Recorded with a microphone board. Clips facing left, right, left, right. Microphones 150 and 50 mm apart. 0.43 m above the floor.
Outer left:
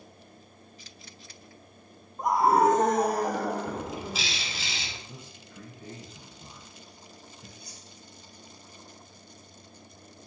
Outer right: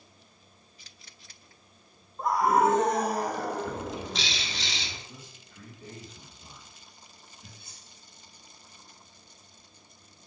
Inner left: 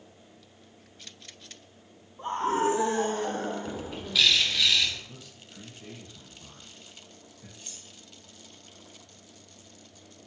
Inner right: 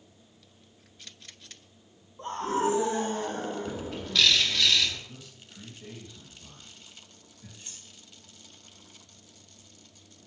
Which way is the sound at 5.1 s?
55° left (ahead or behind).